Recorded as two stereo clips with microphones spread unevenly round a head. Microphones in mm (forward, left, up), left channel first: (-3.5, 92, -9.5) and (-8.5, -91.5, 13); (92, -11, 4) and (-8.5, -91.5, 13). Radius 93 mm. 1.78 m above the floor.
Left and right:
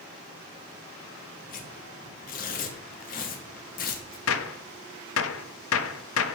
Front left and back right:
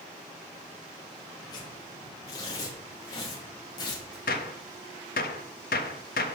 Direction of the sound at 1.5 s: 90° left.